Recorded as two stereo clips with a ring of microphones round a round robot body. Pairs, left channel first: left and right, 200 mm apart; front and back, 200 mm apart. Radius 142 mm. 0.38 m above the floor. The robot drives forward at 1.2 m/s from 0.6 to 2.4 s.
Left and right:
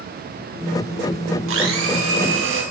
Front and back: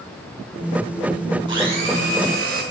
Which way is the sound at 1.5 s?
105° right.